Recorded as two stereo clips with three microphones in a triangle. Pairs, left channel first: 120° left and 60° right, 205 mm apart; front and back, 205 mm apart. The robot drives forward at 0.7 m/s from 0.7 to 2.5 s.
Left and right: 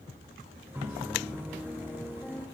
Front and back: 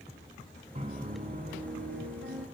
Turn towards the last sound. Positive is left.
turn(degrees=-160)